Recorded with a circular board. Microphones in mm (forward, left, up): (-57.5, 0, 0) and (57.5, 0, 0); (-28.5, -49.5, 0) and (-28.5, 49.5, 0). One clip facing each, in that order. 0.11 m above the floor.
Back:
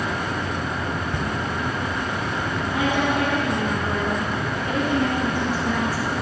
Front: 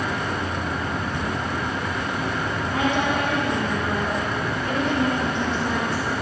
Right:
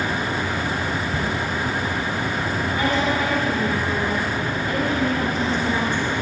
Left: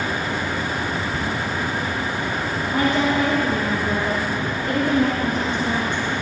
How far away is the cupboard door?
About 1.8 m.